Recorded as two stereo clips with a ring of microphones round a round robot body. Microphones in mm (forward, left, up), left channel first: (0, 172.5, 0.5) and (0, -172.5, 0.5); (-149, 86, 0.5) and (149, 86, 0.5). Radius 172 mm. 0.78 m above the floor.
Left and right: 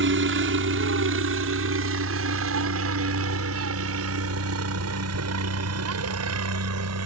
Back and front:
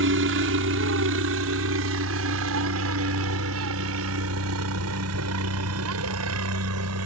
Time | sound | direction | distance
0.0 | a helicopter | 45° right | ?